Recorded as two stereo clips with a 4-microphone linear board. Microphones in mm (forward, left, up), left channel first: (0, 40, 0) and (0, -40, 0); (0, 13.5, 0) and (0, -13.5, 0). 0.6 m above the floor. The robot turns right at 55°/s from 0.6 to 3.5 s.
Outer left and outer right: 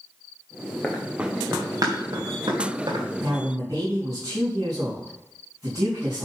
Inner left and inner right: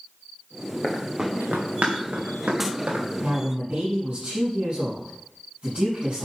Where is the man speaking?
55° right (ahead or behind), 4.5 m; by 6.3 s 40° right (ahead or behind), 4.5 m.